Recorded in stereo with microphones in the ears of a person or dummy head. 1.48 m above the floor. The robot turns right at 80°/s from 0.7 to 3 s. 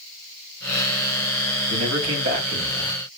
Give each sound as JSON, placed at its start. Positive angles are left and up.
{"t": 1.7, "sound": "a man speaking", "azimuth_deg": -105, "distance_m": 3.0}